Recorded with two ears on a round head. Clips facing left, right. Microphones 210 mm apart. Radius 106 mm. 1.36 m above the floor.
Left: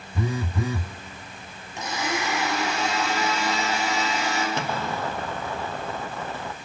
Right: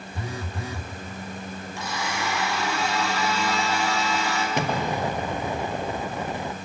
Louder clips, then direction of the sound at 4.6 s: Right 3 dB; 15° right (ahead or behind).